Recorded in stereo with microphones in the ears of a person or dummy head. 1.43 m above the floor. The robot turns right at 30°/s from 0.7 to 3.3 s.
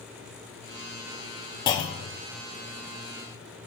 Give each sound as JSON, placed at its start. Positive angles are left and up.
{"t": 1.7, "sound": "a clunk", "side_deg": 25, "distance_m": 0.5}